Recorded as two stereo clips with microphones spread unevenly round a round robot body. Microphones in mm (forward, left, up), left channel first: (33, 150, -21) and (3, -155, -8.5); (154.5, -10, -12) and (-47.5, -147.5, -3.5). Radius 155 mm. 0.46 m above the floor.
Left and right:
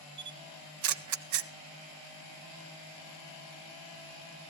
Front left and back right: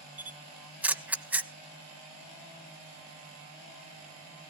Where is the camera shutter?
60° right, 0.8 m.